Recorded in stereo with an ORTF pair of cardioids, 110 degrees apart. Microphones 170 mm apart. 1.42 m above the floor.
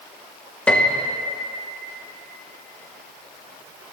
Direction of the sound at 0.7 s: 5° left.